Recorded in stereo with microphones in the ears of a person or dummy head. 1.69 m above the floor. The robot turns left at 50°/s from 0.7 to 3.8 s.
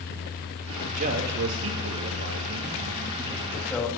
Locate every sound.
0.9 s a man speaking: 40° right, 2.5 m; by 3.9 s 175° left, 2.5 m